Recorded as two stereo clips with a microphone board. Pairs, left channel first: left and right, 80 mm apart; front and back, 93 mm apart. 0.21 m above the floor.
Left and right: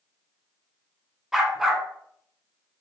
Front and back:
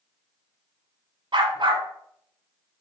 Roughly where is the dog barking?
Behind.